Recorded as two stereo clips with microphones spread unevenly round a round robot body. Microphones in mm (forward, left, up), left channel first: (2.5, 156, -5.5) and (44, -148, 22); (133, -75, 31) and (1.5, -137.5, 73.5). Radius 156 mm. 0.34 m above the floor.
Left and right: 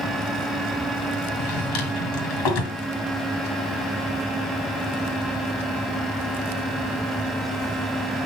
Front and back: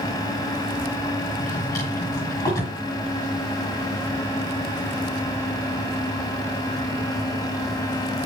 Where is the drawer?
100° left, 2.5 m.